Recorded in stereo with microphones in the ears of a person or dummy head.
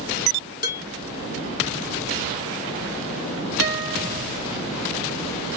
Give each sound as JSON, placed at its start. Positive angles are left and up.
{"t": 0.6, "sound": "dishes clattering", "side_deg": 45, "distance_m": 1.5}
{"t": 3.6, "sound": "a guitar", "side_deg": 75, "distance_m": 1.3}